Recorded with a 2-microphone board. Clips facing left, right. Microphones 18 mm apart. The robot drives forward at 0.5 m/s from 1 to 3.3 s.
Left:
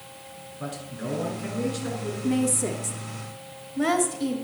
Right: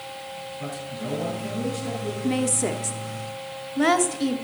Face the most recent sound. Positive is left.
turn(degrees=-25)  # may be behind; listen again after turning